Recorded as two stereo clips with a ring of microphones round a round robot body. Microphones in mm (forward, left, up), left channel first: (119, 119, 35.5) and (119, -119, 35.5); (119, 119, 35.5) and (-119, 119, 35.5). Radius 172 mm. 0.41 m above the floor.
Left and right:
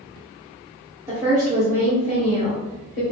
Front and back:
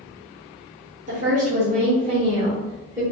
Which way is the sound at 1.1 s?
160° right.